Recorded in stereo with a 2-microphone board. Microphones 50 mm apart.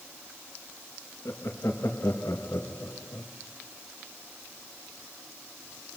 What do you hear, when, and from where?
1.2 s laughter: 75° left (ahead or behind), 1.8 m